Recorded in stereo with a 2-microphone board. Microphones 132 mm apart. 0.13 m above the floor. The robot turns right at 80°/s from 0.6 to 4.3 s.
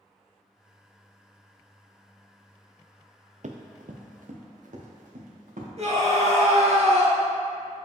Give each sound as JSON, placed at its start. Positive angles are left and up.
{"t": 3.4, "sound": "running footsteps", "side_deg": -70, "distance_m": 0.8}
{"t": 5.8, "sound": "a scream", "side_deg": -55, "distance_m": 2.0}